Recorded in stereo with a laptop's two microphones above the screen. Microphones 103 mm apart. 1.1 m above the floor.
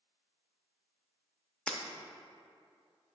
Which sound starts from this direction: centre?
Breaking glass, at 1.7 s.